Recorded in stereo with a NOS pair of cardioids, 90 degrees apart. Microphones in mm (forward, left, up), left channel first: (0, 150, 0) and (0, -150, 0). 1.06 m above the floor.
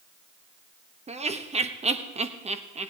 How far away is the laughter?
About 1.2 m.